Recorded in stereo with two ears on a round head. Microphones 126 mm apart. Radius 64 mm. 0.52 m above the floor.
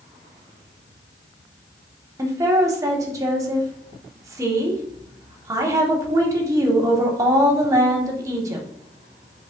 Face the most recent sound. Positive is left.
turn(degrees=-20)  # may be behind; listen again after turning